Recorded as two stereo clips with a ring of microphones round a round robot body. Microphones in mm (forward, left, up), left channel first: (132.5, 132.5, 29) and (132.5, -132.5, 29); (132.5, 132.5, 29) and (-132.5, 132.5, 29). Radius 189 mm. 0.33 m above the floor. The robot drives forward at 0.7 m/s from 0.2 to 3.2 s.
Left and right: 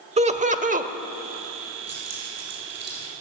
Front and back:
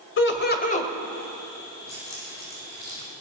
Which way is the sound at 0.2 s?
30° right.